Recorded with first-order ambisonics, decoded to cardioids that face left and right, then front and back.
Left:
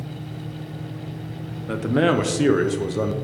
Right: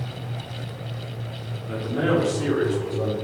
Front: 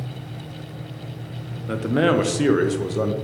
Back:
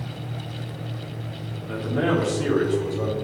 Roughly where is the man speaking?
Ahead left.